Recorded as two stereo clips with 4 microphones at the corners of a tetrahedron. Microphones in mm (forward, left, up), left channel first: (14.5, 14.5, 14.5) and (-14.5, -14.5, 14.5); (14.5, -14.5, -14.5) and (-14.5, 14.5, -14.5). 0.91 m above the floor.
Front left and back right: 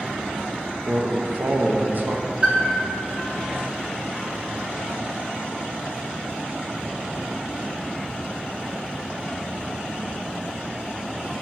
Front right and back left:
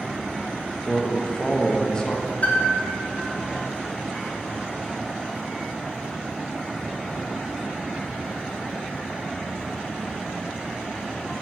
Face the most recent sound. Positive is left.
turn(degrees=-80)